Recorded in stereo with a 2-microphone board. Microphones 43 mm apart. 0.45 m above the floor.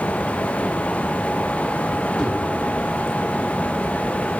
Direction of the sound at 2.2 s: 10° left (ahead or behind).